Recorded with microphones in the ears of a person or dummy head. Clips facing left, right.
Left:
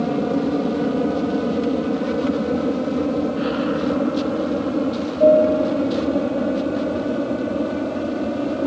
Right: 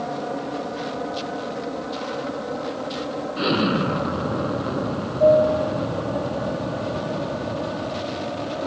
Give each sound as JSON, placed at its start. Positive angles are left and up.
{"t": 0.0, "sound": "an aircraft", "side_deg": 45}
{"t": 3.4, "sound": "an explosion", "side_deg": -60}